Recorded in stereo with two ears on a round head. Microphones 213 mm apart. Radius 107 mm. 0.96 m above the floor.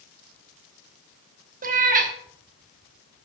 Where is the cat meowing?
35° right (ahead or behind), 0.9 m.